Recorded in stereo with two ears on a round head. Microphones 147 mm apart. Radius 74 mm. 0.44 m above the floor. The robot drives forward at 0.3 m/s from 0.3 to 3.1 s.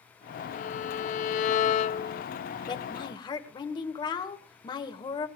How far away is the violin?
About 0.7 m.